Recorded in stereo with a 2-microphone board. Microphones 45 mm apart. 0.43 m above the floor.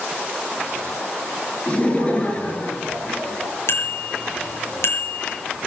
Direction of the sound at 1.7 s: 30° left (ahead or behind).